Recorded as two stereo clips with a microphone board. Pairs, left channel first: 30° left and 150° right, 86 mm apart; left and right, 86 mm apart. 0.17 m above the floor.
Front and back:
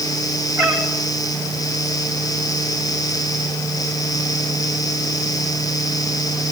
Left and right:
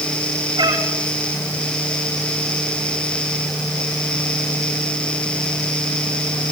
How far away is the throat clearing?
I don't hear throat clearing.